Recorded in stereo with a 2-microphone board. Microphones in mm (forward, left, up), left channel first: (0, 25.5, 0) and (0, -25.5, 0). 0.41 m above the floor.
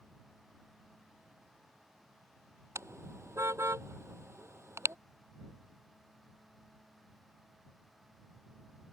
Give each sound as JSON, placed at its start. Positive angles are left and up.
{"t": 2.8, "sound": "a car horn", "side_deg": -70}